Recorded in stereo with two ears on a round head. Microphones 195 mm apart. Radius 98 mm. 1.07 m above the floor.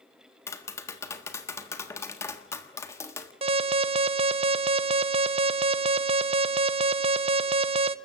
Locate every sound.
0.5 s tapping: 15° left (ahead or behind), 1.5 m
3.4 s an alarm: 30° right (ahead or behind), 0.6 m